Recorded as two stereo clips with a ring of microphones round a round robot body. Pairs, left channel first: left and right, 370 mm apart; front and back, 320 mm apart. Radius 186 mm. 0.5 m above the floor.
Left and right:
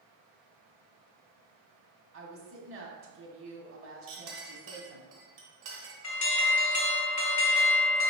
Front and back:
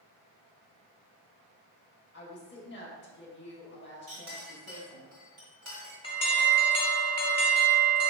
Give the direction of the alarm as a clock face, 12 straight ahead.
10 o'clock.